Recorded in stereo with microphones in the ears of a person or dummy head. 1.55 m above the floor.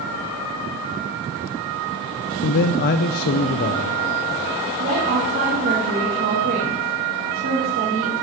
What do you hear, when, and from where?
2.4 s a man speaking: 50° left (ahead or behind), 0.5 m
4.8 s a woman speaking: 45° right (ahead or behind), 2.5 m